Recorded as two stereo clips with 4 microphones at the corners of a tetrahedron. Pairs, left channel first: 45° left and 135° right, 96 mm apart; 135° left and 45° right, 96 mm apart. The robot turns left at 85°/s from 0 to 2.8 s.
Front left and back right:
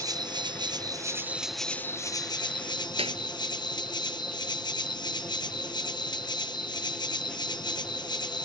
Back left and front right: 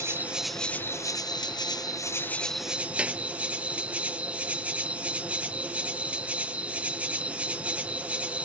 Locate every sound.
0.0 s an insect: 95° right; by 8.5 s 30° left
3.0 s a clap: 120° right